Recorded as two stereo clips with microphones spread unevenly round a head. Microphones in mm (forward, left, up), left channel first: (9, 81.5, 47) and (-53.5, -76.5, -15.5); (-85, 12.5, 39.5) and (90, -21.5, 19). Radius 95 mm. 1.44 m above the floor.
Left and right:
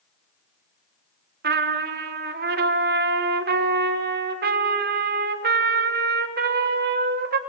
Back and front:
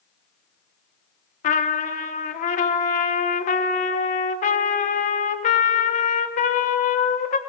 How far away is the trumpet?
About 1.2 m.